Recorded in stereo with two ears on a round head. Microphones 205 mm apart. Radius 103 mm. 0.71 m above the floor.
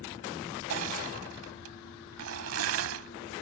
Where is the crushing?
65° right (ahead or behind).